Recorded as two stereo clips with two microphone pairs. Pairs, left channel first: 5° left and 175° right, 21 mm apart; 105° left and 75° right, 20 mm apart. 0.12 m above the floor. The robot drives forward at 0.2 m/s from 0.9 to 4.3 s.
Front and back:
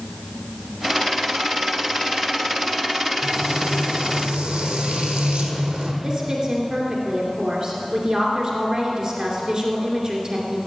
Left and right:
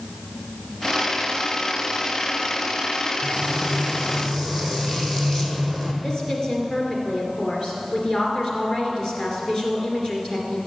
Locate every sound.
3.2 s frying: straight behind, 1.5 m
6.0 s a woman speaking: 150° left, 2.5 m